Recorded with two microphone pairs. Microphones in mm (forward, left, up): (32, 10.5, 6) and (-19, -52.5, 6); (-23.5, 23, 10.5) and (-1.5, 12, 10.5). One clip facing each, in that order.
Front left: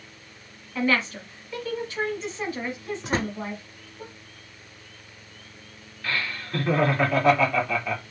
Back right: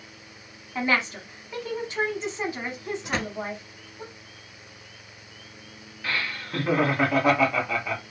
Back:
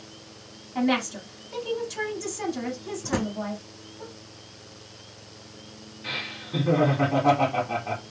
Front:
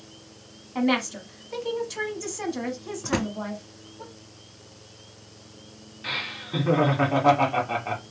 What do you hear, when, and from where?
0.8 s a woman speaking: 85° right, 1.1 m
3.0 s a drawer: 10° left, 0.6 m
6.0 s laughter: 55° right, 1.4 m